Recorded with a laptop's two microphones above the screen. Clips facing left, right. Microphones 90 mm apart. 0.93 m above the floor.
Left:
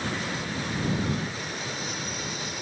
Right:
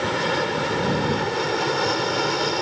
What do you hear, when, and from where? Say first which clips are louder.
0.0 s an aircraft: right 9 dB; 70° right (ahead or behind)